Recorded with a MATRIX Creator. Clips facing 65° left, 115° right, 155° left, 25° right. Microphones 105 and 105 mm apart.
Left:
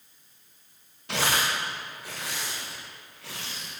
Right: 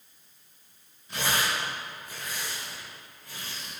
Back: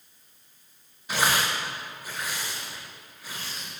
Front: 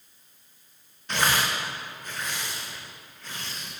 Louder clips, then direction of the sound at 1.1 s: Left 2 dB, even; 75° left.